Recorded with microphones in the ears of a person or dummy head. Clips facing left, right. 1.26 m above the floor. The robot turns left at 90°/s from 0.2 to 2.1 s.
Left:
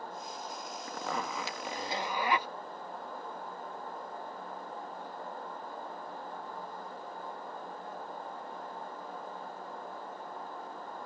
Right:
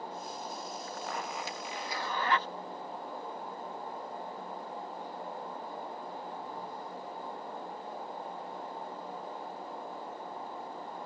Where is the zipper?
125° left; by 2.5 s 15° left.